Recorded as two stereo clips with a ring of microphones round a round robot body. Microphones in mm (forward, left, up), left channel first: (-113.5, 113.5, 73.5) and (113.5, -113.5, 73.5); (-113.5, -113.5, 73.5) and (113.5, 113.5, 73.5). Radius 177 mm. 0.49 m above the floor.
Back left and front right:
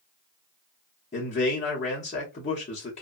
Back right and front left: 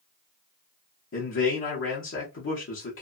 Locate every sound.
1.1 s a man speaking: 165° right, 0.9 m